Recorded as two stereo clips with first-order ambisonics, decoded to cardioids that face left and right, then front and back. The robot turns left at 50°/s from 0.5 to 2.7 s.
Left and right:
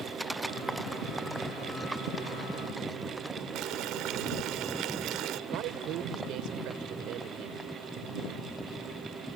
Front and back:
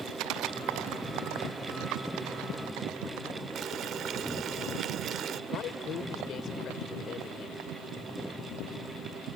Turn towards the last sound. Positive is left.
turn(degrees=-55)